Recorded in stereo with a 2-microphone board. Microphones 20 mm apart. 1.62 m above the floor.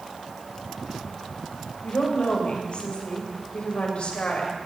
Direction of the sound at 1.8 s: 55° left (ahead or behind).